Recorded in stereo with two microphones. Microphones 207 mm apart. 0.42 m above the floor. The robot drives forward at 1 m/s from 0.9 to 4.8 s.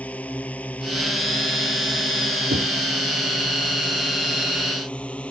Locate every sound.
0.0 s a drone: 5° left (ahead or behind)
2.5 s knocking: 55° right (ahead or behind)